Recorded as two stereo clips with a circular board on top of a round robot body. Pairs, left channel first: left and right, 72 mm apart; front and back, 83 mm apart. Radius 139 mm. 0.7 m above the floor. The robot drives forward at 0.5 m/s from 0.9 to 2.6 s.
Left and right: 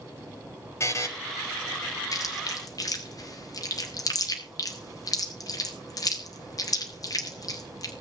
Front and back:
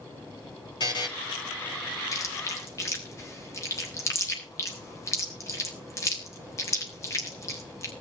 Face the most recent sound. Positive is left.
turn(degrees=55)